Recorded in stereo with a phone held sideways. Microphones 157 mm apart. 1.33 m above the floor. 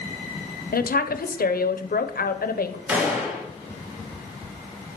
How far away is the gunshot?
About 2 m.